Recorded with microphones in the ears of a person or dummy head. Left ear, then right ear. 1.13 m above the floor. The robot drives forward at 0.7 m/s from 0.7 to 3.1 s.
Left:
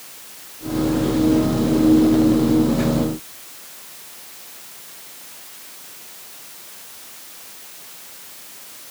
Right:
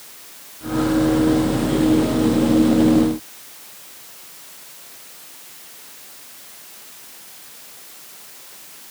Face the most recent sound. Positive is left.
No sound to turn to.